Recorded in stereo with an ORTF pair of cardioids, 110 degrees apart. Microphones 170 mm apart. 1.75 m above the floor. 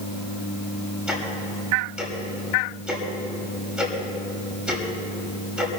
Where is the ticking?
5° right, 6.5 m.